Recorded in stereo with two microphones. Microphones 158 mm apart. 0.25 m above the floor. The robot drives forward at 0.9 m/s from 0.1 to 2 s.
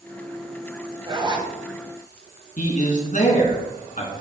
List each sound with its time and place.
1.1 s a zipper: 30° right (ahead or behind), 1.2 m
2.6 s a man speaking: 55° left (ahead or behind), 2.5 m